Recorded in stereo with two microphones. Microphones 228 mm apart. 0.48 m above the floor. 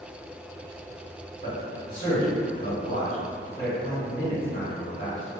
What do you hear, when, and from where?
1.4 s a man speaking: 40° left (ahead or behind), 1.2 m